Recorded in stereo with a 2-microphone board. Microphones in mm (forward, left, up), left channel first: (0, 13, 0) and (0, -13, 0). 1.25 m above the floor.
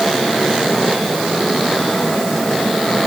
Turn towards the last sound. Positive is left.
No sound to turn to.